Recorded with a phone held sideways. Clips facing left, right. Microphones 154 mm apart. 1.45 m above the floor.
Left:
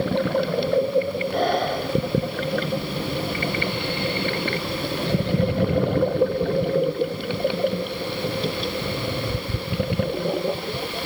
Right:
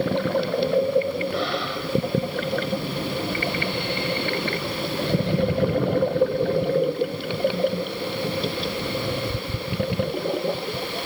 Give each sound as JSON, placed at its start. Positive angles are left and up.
{"t": 1.3, "sound": "breathing", "side_deg": 45}